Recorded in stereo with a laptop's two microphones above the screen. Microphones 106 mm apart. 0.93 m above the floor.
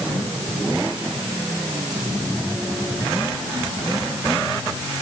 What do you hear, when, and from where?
Only background noise.